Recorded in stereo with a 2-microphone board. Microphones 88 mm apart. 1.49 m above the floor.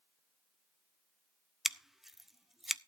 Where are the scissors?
Centre (ahead or behind), 0.5 m.